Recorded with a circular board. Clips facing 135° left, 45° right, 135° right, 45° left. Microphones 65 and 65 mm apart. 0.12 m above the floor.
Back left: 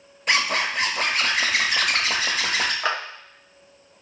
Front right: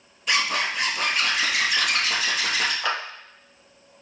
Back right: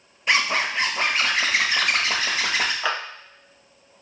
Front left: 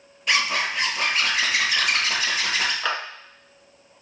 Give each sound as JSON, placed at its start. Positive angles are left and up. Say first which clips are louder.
{"t": 0.3, "sound": "a zipper", "louder": "back left 2 dB, back right 2 dB", "azimuth_deg": 165, "distance_m": 1.1}
{"t": 2.8, "sound": "a clap", "louder": "back left 2 dB, back right 1 dB", "azimuth_deg": 150, "distance_m": 0.9}